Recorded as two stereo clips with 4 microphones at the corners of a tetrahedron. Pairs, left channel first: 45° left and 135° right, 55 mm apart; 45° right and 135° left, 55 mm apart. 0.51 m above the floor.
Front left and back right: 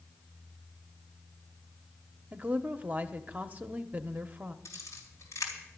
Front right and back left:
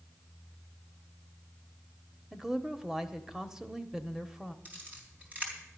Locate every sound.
2.3 s a woman speaking: 155° right, 0.8 m
4.7 s a camera shutter: 75° left, 3.5 m